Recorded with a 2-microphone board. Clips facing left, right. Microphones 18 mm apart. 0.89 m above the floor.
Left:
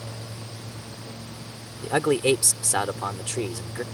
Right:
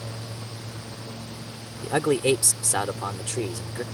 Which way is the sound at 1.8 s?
10° left (ahead or behind).